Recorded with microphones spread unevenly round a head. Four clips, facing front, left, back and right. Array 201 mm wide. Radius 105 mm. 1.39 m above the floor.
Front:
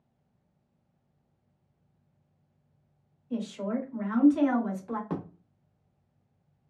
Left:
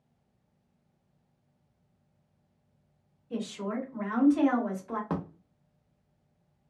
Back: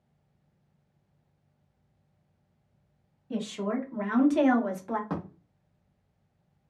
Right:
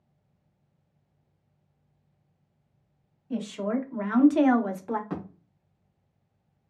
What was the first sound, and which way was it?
A woman speaking, 145° right.